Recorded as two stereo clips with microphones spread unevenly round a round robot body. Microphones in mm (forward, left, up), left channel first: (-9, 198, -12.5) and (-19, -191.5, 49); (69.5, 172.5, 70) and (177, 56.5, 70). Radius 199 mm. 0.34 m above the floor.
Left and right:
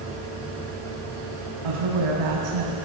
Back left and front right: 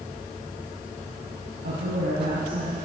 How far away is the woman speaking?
About 3 m.